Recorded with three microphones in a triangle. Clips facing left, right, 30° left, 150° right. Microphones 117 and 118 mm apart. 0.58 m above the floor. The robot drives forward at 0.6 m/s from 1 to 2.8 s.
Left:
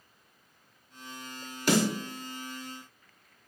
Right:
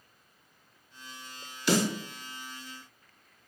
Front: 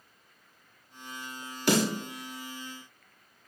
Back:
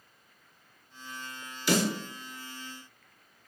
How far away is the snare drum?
About 1.6 m.